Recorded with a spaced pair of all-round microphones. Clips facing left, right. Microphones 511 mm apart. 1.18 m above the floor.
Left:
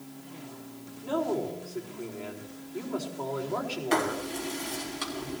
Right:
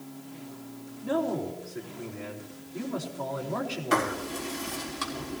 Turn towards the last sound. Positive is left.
turn(degrees=-25)  # may be behind; listen again after turning